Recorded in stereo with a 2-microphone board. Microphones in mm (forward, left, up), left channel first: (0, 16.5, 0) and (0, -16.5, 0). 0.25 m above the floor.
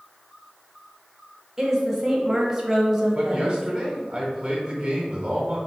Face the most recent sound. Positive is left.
turn(degrees=-15)  # may be behind; listen again after turning